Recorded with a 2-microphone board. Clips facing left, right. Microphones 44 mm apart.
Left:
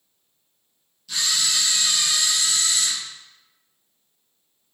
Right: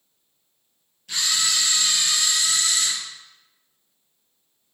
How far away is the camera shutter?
About 3 m.